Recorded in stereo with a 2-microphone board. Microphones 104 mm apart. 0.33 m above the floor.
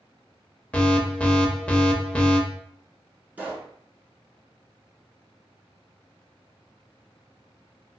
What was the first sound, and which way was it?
An alarm, 10° left (ahead or behind).